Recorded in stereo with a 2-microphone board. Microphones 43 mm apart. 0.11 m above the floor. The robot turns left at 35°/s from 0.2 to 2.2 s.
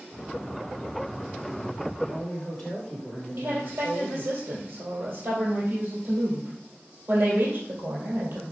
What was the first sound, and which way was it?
A woman speaking, 15° left (ahead or behind).